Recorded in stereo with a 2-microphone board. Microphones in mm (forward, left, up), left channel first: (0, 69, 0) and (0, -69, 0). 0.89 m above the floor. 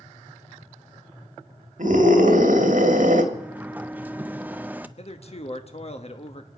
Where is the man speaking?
50° left (ahead or behind), 1.2 m.